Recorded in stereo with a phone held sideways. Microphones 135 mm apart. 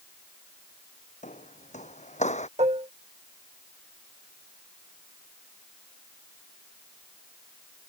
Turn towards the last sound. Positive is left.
turn(degrees=-55)  # may be behind; listen again after turning